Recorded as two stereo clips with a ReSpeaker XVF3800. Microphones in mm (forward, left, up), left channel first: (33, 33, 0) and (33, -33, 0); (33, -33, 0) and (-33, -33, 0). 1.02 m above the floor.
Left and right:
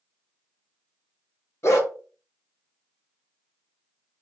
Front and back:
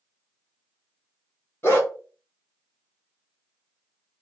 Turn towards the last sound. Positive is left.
turn(degrees=50)